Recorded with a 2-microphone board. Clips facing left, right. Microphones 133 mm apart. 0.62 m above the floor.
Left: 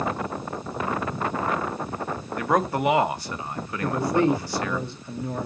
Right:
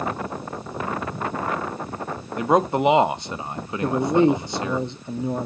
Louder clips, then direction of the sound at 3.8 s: Right 4 dB; 20° right (ahead or behind).